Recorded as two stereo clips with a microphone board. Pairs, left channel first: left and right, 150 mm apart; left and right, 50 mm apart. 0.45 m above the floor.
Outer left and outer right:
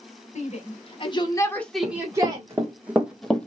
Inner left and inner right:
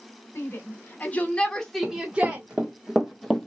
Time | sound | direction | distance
0.3 | a shout | 55° left (ahead or behind) | 1.2 m
1.8 | running footsteps | 25° right (ahead or behind) | 1.3 m